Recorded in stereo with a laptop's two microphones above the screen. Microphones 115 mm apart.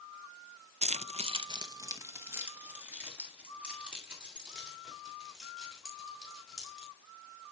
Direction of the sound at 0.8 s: 85° right.